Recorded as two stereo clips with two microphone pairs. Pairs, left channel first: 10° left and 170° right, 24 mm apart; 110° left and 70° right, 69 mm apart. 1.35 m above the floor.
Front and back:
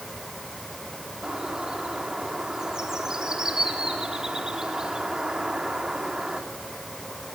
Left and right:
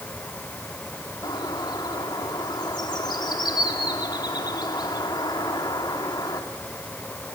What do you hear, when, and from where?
1.2 s a bird: 130° left, 3 m